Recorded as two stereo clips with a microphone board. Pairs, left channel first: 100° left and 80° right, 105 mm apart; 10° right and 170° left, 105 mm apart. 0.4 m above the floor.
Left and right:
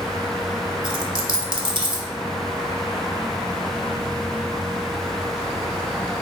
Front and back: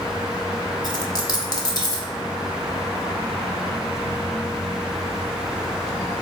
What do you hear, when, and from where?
0.8 s a dropped coin: 50° right, 0.5 m